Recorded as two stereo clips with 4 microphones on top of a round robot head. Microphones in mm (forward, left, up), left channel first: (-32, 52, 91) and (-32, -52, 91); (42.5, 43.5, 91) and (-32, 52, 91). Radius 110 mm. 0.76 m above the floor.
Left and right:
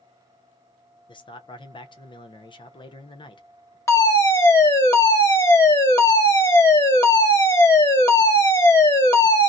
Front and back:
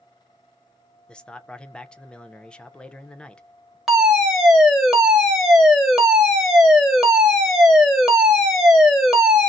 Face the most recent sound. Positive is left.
turn(degrees=85)